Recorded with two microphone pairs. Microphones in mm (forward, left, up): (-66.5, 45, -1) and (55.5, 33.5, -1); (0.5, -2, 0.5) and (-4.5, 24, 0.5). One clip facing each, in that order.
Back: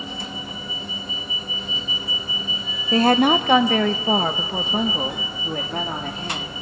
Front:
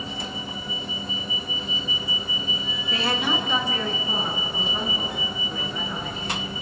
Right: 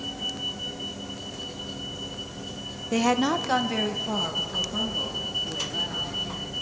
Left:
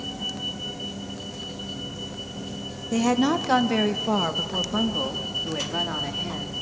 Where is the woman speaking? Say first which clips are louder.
Back 11 dB, left 1 dB; 145° right, 0.7 m; by 6.5 s 150° left, 3.5 m.